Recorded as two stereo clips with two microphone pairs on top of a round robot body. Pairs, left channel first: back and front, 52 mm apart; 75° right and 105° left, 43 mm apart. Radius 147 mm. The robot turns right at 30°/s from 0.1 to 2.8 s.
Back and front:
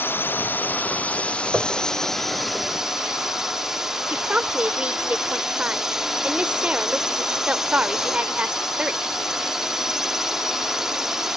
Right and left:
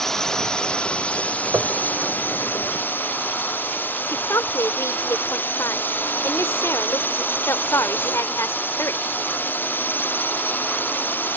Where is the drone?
155° right; by 11.4 s 75° right.